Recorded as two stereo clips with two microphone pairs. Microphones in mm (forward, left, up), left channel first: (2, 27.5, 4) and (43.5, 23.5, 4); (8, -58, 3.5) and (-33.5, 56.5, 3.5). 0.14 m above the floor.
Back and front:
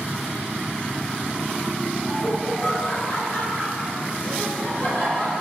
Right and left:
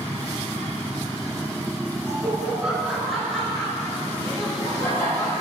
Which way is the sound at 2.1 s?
150° left.